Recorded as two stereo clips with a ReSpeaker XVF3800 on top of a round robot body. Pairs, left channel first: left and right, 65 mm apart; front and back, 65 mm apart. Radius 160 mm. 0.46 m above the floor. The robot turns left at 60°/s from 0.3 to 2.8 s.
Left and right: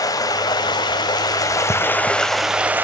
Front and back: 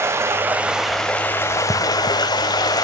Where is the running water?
125° left, 0.7 m; by 2.9 s 25° right, 0.7 m.